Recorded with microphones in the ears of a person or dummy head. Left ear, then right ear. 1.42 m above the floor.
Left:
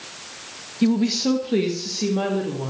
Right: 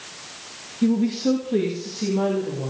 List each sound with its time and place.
0.8 s a woman speaking: 45° left (ahead or behind), 1.1 m